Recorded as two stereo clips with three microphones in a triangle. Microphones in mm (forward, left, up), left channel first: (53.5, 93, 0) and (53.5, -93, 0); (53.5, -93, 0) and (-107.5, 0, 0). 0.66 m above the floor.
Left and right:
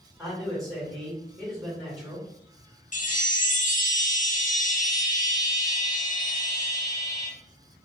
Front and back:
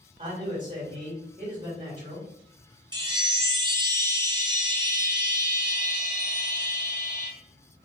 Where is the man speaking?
Straight behind, 1.7 m.